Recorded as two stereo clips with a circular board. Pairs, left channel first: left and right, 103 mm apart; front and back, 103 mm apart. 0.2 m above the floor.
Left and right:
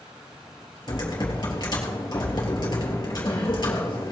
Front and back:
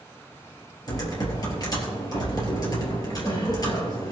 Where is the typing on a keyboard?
50° left, 3.5 m.